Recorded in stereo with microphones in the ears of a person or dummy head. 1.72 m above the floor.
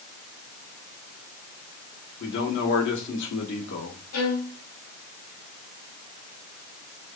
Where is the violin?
80° left, 1.9 m.